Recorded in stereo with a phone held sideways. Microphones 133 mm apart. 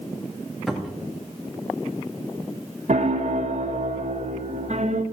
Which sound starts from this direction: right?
A piano, at 2.9 s.